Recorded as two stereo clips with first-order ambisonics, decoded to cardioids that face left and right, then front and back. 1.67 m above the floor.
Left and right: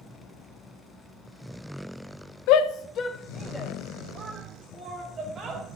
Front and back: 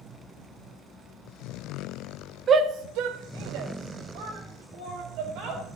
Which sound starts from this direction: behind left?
A shout, at 2.5 s.